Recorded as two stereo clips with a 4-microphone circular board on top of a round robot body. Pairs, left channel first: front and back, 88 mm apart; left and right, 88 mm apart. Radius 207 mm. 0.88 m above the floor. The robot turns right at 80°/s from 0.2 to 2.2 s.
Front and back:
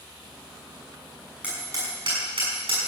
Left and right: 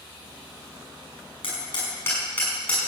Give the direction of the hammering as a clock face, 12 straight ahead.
9 o'clock.